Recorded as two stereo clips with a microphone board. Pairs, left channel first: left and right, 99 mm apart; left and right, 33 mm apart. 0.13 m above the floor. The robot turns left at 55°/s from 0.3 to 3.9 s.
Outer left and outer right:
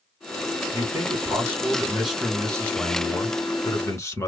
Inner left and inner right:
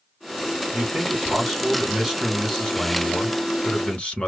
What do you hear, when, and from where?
0.7 s a man speaking: 30° right (ahead or behind), 1.2 m; by 4.3 s 30° left (ahead or behind), 1.2 m